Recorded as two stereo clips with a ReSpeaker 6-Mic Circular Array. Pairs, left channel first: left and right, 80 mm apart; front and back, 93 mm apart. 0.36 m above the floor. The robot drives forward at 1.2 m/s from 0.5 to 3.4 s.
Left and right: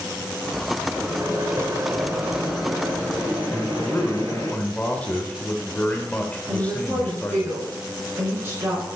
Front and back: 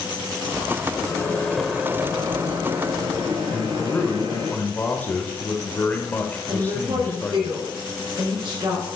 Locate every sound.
0.9 s a microwave: 35° right, 1.4 m; by 4.5 s 165° right, 2.5 m
3.5 s a man speaking: 45° left, 1.1 m
6.5 s a woman speaking: 145° right, 4 m